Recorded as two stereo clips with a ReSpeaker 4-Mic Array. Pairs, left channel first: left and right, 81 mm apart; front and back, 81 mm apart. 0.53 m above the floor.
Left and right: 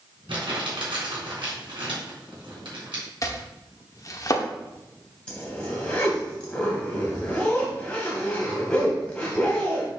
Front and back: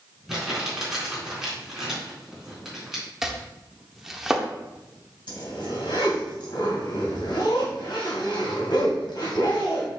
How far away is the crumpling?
About 3.5 m.